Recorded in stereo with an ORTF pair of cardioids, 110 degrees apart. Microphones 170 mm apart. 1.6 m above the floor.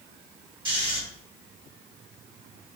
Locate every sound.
0.7 s snoring: 30° right, 1.5 m